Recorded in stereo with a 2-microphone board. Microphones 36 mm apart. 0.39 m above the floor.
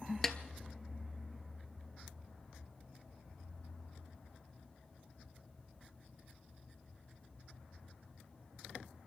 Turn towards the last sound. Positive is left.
turn(degrees=10)  # may be behind; listen again after turning